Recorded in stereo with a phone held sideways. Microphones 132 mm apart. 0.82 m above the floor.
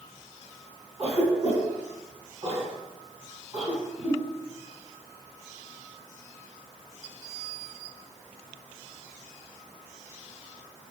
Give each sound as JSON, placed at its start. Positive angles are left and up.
{"t": 1.0, "sound": "a cough", "side_deg": -25, "distance_m": 6.5}